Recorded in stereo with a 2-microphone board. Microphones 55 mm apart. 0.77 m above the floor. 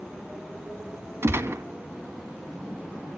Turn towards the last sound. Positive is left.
turn(degrees=-50)  # may be behind; listen again after turning